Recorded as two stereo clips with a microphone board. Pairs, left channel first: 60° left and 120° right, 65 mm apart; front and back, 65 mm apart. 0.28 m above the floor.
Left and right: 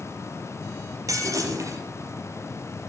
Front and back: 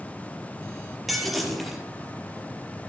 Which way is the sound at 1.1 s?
90° right.